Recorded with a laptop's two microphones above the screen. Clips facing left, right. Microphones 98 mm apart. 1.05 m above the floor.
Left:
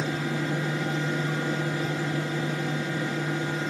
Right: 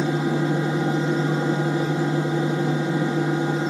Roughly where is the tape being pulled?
No tape being pulled in this recording.